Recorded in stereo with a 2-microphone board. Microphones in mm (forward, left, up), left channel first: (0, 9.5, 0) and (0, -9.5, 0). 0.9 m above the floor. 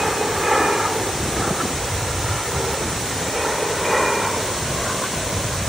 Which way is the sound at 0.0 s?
30° right (ahead or behind).